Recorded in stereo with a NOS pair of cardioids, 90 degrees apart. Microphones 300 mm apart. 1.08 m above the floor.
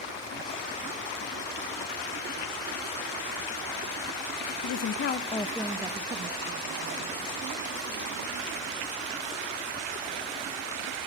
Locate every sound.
4.6 s a woman speaking: 65° left, 0.8 m; by 8.7 s 50° right, 3 m